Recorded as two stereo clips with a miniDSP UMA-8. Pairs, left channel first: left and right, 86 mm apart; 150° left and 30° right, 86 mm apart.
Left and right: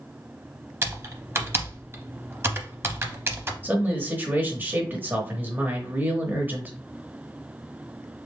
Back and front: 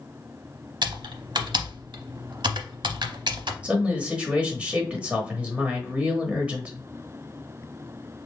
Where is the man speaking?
80° right, 1.0 m.